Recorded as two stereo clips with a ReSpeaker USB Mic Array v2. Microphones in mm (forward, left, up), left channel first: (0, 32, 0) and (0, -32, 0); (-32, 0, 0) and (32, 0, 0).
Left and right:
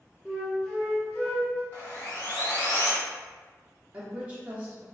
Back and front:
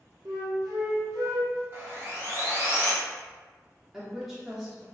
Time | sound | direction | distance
0.2 | a flute | 10° left | 1.1 m
1.7 | sawing | 35° left | 1.4 m
3.9 | a woman speaking | 85° right | 0.7 m